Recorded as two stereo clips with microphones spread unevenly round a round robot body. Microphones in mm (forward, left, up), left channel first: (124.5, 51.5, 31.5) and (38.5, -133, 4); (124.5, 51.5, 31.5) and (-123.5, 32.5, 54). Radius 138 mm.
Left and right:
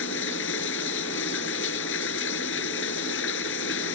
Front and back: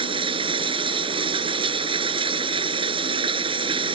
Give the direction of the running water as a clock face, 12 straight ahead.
8 o'clock.